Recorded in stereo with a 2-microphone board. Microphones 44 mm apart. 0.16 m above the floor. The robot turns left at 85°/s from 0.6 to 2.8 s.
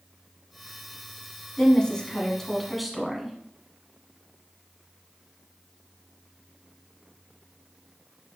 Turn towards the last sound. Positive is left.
turn(degrees=0)  # may be behind; listen again after turning